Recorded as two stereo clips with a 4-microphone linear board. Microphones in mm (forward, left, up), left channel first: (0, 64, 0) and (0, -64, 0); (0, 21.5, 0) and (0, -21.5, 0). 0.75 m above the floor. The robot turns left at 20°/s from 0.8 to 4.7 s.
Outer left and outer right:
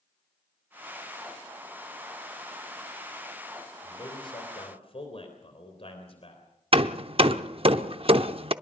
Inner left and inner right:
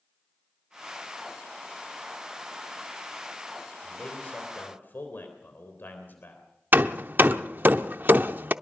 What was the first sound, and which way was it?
A man speaking, 30° left (ahead or behind).